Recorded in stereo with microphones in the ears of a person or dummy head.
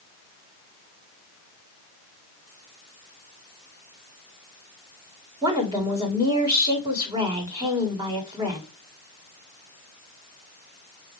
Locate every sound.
5.4 s a woman speaking: 25° right (ahead or behind), 1.3 m